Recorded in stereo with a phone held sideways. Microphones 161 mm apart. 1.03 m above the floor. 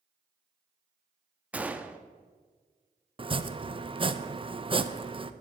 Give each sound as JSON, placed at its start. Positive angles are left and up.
{"t": 1.5, "sound": "a gunshot", "side_deg": -10, "distance_m": 0.8}
{"t": 3.2, "sound": "chopping", "side_deg": -35, "distance_m": 0.7}